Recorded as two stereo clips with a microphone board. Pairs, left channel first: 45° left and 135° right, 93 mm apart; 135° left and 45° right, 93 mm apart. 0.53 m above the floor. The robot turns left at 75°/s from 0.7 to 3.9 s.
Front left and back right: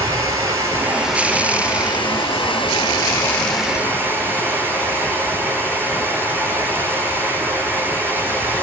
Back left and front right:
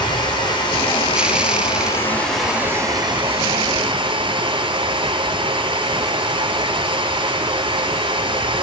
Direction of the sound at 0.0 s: 170° left.